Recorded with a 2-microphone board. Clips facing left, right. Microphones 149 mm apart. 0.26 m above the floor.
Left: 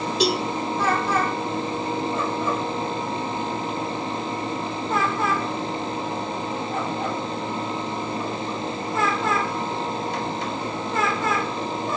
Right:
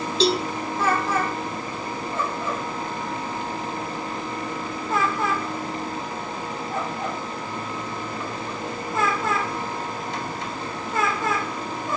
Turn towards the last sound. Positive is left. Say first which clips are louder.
# right 2 dB
turn(degrees=15)  # may be behind; listen again after turning